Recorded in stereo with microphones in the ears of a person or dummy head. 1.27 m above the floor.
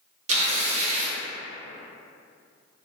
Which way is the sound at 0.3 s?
35° right (ahead or behind).